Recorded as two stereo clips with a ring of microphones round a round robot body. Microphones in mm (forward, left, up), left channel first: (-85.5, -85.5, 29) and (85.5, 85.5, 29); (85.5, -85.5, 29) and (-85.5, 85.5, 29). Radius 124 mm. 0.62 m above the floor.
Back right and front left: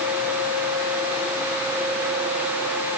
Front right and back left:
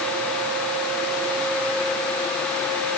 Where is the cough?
No cough in this recording.